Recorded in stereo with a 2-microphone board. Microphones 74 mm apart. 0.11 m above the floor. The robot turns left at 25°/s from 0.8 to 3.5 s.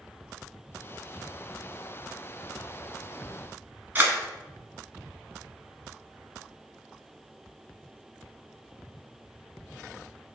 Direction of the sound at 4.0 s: 25° right (ahead or behind).